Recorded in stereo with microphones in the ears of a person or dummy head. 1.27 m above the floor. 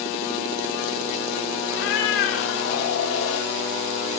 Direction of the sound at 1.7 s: 80° left.